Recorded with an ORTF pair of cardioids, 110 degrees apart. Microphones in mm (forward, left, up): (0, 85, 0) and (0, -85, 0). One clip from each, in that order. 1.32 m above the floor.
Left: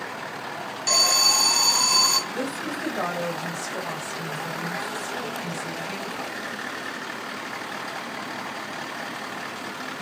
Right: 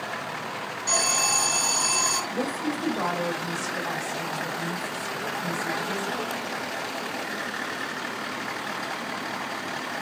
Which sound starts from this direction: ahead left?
An alarm, at 0.9 s.